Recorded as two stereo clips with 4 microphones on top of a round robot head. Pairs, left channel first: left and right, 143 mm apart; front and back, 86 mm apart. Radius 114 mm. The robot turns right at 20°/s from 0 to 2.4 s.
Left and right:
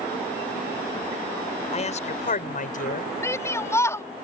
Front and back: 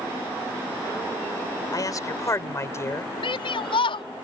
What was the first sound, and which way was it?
A man speaking, 45° left.